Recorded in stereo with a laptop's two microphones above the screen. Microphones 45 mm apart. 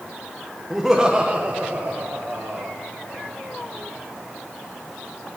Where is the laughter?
5° right (ahead or behind), 0.8 m; by 2.8 s 50° right (ahead or behind), 1.2 m.